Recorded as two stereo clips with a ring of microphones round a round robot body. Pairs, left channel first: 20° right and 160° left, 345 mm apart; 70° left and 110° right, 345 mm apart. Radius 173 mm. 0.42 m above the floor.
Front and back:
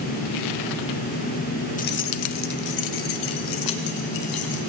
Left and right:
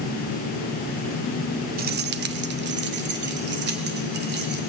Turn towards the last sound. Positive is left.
turn(degrees=-50)